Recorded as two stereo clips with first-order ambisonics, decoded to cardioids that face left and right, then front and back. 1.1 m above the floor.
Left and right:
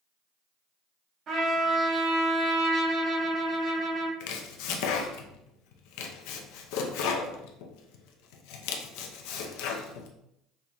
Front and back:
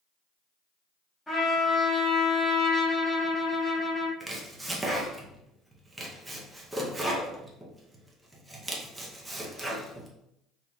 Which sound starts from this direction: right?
A trumpet, at 1.3 s.